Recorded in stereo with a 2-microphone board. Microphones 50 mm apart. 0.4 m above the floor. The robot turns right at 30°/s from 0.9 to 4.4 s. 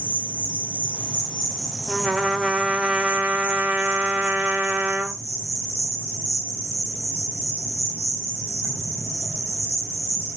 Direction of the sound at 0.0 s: 155° left.